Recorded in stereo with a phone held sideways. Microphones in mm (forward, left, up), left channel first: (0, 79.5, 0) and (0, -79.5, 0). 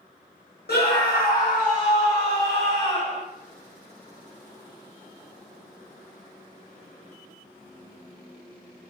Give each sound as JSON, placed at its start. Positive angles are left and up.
{"t": 0.7, "sound": "a scream", "side_deg": 90, "distance_m": 1.0}